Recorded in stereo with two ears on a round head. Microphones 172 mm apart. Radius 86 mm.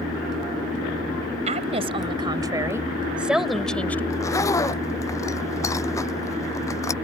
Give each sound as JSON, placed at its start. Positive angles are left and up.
{"t": 1.5, "sound": "a woman speaking", "side_deg": -35}
{"t": 4.1, "sound": "a zipper", "side_deg": 15}